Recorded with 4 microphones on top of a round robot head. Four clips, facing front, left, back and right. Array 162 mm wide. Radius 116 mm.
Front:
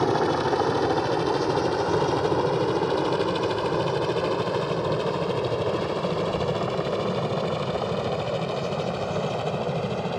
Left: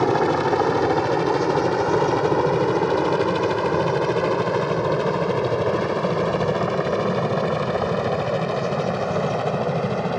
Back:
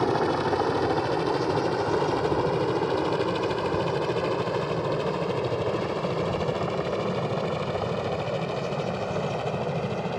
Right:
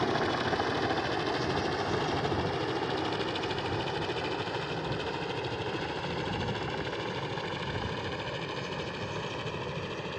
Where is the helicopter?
80° left; by 10.2 s 85° left.